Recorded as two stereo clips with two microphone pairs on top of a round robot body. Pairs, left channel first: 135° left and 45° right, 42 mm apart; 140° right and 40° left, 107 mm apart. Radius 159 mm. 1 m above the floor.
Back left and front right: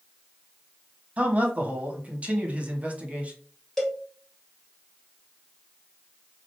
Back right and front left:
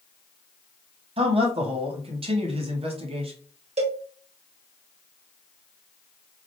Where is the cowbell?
50° left, 1.5 m.